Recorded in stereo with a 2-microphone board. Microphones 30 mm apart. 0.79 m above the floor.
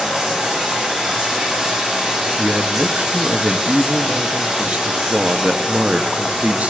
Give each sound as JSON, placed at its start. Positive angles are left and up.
{"t": 0.0, "sound": "running water", "side_deg": -25, "distance_m": 6.0}
{"t": 2.4, "sound": "a man speaking", "side_deg": -50, "distance_m": 0.6}